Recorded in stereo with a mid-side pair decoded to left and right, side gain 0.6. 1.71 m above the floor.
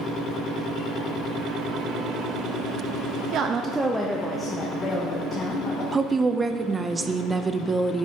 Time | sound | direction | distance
3.3 | a woman speaking | 55° right | 0.8 m
5.9 | a woman speaking | 20° right | 0.6 m